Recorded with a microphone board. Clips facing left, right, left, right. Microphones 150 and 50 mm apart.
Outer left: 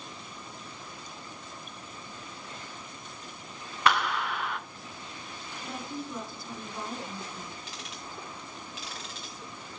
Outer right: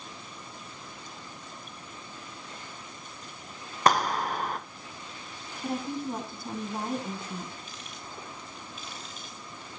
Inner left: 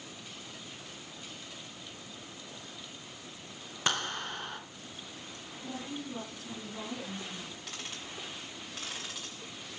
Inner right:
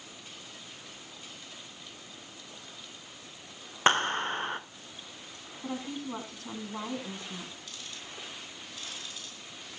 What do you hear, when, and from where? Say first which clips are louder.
3.9 s a clap: outer right 3 dB, inner right 8 dB; 40° right (ahead or behind), 1.1 m
5.6 s a woman speaking: outer right 7 dB, inner right 4 dB; 60° right (ahead or behind), 4.5 m
7.7 s ticking: outer left 1 dB, inner left 2 dB; 85° left, 3 m